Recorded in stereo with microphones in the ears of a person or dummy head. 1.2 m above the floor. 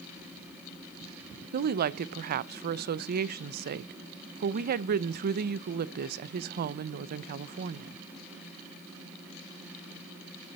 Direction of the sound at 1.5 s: 50° right (ahead or behind).